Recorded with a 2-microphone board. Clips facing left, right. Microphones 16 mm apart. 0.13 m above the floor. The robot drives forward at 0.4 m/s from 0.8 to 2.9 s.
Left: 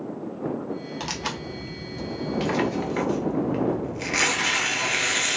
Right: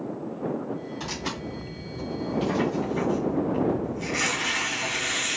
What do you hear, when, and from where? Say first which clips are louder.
1.0 s tearing paper: left 2 dB; 40° left (ahead or behind), 1.3 m; by 5.4 s 60° left (ahead or behind), 0.9 m